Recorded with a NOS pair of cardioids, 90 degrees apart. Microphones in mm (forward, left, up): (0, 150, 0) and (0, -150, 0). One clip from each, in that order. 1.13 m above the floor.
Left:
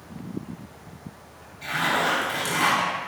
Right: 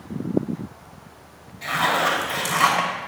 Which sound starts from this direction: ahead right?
A zipper, at 1.6 s.